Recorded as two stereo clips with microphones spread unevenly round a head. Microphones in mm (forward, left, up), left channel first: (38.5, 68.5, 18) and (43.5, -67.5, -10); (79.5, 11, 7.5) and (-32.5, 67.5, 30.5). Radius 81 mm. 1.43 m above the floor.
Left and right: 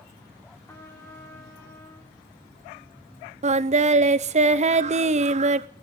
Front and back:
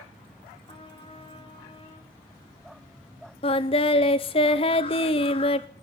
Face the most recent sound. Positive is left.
turn(degrees=-65)